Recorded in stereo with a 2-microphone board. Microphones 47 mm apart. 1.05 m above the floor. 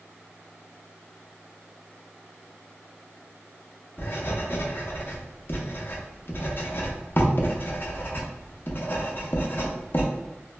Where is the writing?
50° left (ahead or behind), 0.6 m.